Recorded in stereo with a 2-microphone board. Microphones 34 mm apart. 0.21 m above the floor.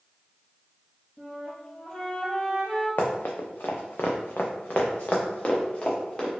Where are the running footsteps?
55° left (ahead or behind), 0.9 m; by 6.3 s 30° left (ahead or behind), 1.6 m.